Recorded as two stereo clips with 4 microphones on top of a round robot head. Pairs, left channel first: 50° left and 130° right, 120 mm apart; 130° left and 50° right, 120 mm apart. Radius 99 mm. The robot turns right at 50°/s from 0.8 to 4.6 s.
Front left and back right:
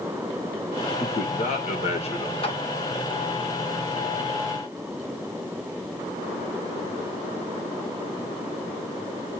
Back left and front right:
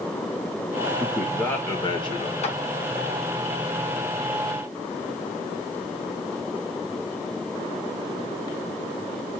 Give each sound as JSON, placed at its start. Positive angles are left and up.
{"t": 1.0, "sound": "a man speaking", "azimuth_deg": 30, "distance_m": 2.5}
{"t": 2.4, "sound": "a clap", "azimuth_deg": 95, "distance_m": 2.0}